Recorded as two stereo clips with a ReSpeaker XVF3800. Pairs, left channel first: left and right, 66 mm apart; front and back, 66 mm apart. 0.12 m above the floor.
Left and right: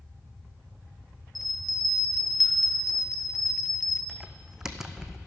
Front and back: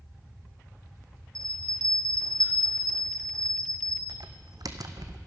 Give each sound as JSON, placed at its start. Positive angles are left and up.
{"t": 1.4, "sound": "a bell", "azimuth_deg": 175, "distance_m": 2.0}
{"t": 4.1, "sound": "typing on a keyboard", "azimuth_deg": -175, "distance_m": 1.0}